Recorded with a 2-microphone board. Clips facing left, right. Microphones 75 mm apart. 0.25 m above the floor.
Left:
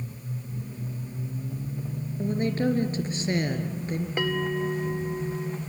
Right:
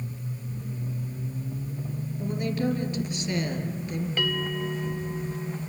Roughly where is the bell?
Left.